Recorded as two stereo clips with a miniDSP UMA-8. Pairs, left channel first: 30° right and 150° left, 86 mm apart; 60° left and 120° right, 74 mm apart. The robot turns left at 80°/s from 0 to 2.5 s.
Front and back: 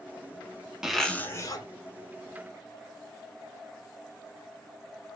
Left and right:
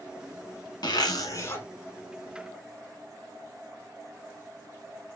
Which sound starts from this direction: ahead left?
A zipper, at 0.8 s.